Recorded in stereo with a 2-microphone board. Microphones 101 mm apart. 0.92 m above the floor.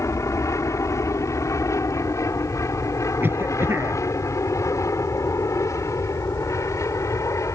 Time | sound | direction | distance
0.0 | an aircraft | 30° left (ahead or behind) | ?
3.2 | a cough | 20° right (ahead or behind) | ?